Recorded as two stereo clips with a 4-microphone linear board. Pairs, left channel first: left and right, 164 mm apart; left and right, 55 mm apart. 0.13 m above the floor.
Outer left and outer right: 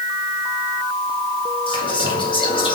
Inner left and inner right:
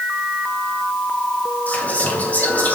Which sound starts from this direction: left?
Whispering, at 1.7 s.